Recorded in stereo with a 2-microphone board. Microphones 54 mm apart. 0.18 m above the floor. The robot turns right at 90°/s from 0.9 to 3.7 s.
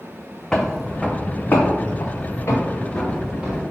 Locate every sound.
0.5 s footsteps: 15° left (ahead or behind), 0.6 m; by 3.6 s 35° right (ahead or behind), 2.0 m